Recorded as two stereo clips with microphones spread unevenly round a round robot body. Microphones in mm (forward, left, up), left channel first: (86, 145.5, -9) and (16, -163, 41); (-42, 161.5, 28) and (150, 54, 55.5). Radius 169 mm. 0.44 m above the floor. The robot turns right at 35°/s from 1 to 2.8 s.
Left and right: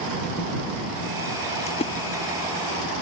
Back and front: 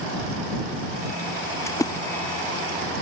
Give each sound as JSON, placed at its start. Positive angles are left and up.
{"t": 1.7, "sound": "a splash", "azimuth_deg": 100}